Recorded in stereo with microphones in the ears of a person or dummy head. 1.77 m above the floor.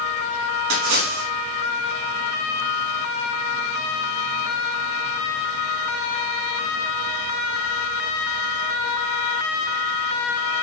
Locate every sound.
0.7 s a splash: 80° right, 3.5 m